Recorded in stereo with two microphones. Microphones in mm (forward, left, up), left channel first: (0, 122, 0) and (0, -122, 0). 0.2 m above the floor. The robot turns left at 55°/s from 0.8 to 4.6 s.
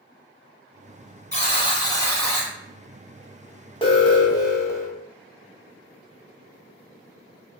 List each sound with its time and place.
1.3 s a buzzer: 65° left, 1.5 m; by 2.5 s straight ahead, 1.5 m
3.8 s an alarm: 20° left (ahead or behind), 0.7 m; by 4.9 s 10° left (ahead or behind), 0.7 m